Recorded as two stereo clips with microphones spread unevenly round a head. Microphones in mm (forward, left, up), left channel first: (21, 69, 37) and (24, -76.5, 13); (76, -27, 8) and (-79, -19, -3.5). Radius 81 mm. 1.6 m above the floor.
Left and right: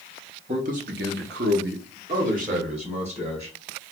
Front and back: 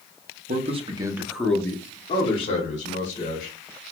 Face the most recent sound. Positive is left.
turn(degrees=-40)